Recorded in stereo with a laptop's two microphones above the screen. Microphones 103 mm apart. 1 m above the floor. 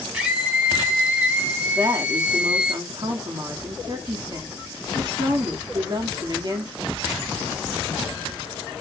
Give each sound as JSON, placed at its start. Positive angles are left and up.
{"t": 0.1, "sound": "a scream", "side_deg": -15, "distance_m": 1.8}
{"t": 1.8, "sound": "a woman speaking", "side_deg": -40, "distance_m": 2.0}